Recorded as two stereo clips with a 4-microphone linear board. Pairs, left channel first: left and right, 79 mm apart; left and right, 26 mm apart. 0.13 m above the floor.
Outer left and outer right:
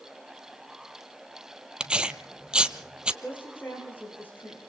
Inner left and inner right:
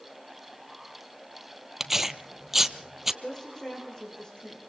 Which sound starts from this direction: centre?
Tearing paper, at 1.8 s.